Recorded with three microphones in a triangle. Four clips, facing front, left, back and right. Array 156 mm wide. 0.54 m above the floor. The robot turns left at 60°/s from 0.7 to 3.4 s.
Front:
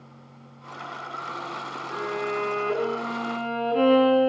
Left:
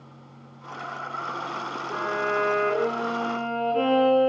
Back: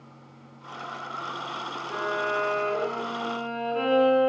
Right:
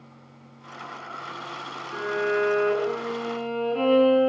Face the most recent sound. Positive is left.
turn(degrees=5)